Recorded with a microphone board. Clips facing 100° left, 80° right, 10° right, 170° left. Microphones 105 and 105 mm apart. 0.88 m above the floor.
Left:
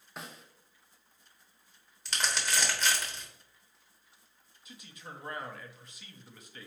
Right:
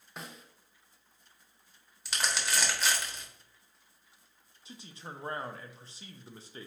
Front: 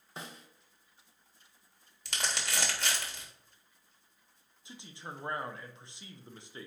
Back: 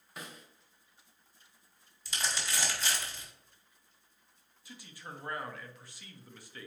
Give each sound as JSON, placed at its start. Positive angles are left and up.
{"t": 0.2, "sound": "a snare drum", "azimuth_deg": 15, "distance_m": 0.7}
{"t": 2.0, "sound": "crumpling", "azimuth_deg": 5, "distance_m": 1.2}
{"t": 4.7, "sound": "a man speaking", "azimuth_deg": -60, "distance_m": 0.5}